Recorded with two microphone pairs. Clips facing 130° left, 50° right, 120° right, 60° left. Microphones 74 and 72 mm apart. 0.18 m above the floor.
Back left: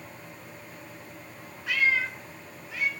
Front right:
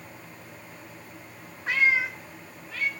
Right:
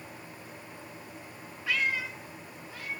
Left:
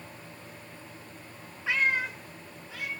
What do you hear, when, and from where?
1.7 s a cat meowing: 5° right, 0.9 m; by 2.9 s 55° left, 2.5 m